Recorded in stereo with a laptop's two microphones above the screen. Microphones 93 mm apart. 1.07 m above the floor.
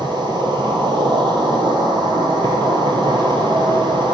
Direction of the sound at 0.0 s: 55° right (ahead or behind).